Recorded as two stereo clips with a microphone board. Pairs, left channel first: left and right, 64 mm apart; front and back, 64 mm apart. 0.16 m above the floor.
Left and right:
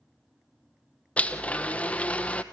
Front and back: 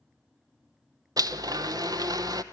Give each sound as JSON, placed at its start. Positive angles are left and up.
{"t": 1.2, "sound": "a blender", "azimuth_deg": 160, "distance_m": 0.8}